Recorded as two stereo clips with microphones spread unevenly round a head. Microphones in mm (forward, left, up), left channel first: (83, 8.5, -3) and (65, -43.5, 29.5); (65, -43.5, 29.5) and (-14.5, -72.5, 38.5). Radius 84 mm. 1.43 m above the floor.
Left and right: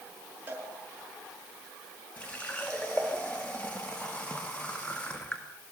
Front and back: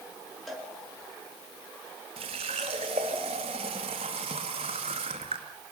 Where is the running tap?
160° left, 1.8 m.